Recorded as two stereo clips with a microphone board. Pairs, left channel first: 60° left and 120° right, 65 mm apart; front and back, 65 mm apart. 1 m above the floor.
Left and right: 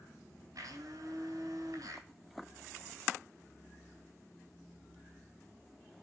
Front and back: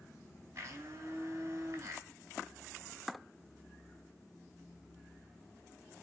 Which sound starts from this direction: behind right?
A blender, at 0.6 s.